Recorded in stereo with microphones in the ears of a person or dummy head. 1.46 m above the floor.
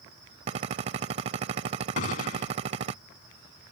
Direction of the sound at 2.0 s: 50° left (ahead or behind).